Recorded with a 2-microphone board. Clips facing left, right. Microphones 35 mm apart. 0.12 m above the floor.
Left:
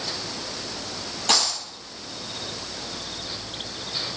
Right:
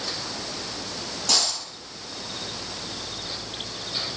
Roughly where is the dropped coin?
Left.